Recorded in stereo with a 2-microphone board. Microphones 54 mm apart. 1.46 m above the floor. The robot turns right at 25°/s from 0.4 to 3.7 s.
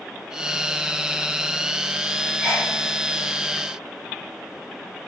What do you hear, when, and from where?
2.4 s a sneeze: 20° right (ahead or behind), 3 m; by 2.7 s 10° right (ahead or behind), 3 m